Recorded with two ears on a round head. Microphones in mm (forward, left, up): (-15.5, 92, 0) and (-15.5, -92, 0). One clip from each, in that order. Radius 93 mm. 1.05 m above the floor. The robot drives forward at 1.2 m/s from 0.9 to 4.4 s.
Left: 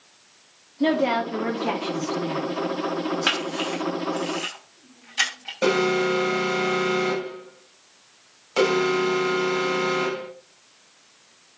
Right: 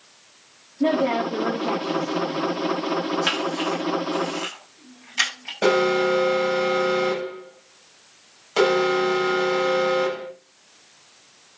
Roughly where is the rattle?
No rattle in this recording.